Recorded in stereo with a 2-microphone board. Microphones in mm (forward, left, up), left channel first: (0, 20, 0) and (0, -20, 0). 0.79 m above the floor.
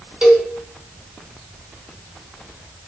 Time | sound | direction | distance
0.2 | a cowbell | 20° right (ahead or behind) | 2.5 m